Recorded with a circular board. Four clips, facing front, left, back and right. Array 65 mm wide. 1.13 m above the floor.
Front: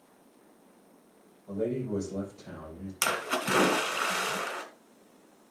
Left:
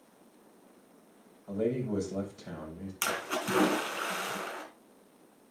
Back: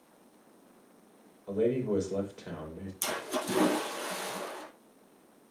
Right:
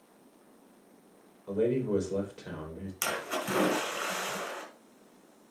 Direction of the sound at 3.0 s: Straight ahead.